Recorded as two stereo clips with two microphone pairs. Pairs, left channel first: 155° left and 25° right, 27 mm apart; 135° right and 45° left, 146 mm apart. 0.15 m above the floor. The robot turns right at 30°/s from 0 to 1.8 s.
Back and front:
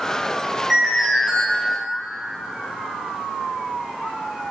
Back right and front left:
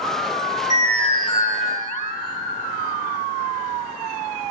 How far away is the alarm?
About 7 m.